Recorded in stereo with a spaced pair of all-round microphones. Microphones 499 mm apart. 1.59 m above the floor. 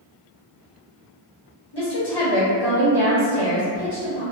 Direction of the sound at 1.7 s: 50° left (ahead or behind).